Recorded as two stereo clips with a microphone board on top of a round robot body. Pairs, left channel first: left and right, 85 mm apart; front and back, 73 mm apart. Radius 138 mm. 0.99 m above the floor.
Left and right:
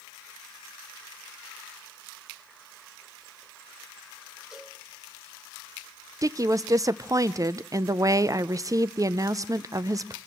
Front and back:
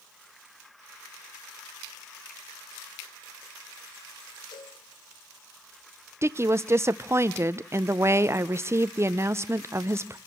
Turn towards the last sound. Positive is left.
turn(degrees=-130)